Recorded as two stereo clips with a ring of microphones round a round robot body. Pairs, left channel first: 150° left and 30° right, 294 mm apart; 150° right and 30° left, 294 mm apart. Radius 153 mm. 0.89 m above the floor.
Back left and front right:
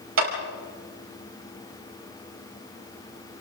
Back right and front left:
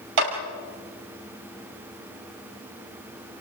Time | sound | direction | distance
0.2 | a clap | 20° left | 5.5 m